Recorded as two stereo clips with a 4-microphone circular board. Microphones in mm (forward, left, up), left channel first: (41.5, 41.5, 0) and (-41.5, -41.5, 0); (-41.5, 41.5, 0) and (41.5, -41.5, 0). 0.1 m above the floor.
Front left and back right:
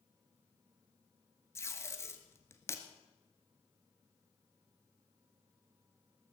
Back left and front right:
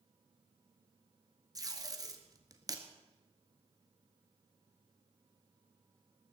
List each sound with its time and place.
1.6 s tape being pulled: 10° right, 1.4 m